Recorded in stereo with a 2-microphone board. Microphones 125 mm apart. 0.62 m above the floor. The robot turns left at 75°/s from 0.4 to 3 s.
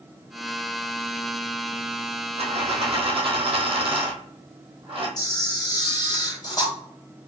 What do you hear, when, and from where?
2.4 s a dropped coin: 70° right, 1.1 m; by 5.2 s 120° right, 1.1 m
5.2 s a camera shutter: 30° left (ahead or behind), 1.2 m